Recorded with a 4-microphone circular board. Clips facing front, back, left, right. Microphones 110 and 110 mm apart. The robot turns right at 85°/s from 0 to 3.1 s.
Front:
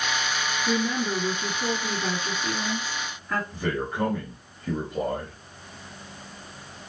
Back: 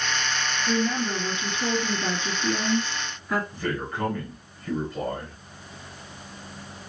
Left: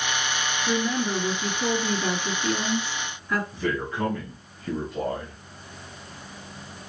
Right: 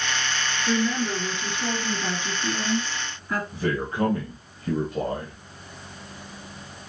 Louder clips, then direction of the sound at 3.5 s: Front 1 dB, right 1 dB; 60° right.